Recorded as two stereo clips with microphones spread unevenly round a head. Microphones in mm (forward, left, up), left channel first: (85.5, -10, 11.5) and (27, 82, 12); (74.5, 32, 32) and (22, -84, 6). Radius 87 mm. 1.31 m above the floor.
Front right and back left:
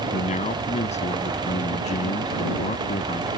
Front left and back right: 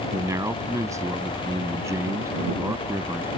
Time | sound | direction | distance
0.1 | a man speaking | 50° right | ?